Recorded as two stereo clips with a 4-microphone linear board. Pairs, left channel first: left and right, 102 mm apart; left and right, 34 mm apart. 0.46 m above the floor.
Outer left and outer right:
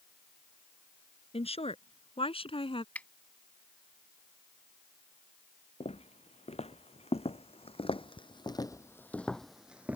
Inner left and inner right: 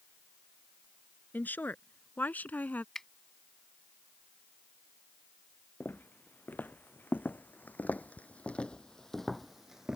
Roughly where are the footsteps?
Left.